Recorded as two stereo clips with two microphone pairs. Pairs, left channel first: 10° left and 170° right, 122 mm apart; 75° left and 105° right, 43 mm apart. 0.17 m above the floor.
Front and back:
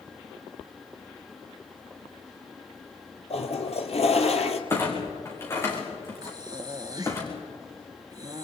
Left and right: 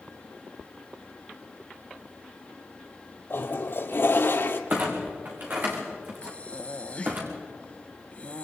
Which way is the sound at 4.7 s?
60° right.